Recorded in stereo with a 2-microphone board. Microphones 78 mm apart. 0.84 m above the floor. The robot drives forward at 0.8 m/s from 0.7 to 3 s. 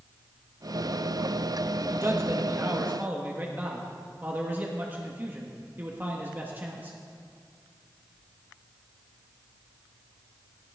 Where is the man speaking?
35° right (ahead or behind), 1.1 m; by 7.0 s 25° right (ahead or behind), 1.5 m.